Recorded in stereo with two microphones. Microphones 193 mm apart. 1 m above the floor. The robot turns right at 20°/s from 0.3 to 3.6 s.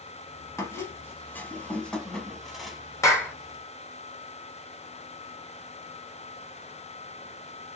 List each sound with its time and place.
0.6 s a squeak: 15° left (ahead or behind), 0.9 m; by 2.8 s centre (ahead or behind), 0.9 m
3.0 s a clap: 15° left (ahead or behind), 1.0 m; by 3.3 s 10° left (ahead or behind), 1.0 m